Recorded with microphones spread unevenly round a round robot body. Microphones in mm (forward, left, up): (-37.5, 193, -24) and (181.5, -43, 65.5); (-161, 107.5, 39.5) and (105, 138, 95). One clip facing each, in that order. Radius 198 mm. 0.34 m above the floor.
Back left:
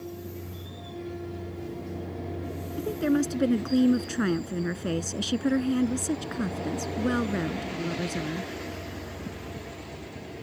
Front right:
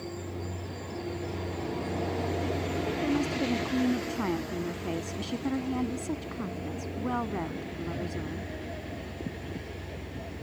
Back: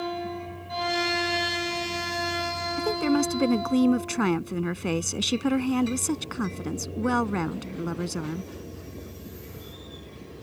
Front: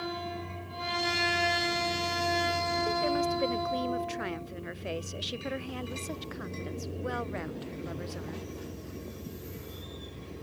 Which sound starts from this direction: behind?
A woman speaking, at 2.8 s.